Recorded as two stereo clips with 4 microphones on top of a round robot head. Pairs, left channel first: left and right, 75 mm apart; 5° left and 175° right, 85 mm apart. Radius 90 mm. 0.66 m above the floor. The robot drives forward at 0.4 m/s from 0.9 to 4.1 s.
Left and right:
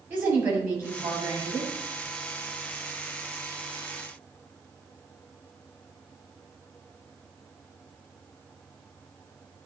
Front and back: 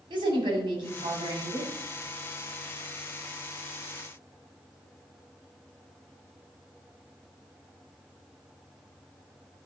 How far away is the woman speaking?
About 3 m.